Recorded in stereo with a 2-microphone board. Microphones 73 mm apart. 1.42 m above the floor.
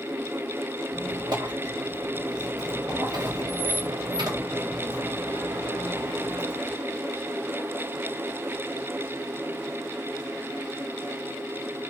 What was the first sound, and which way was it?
A squeak, 65° right (ahead or behind).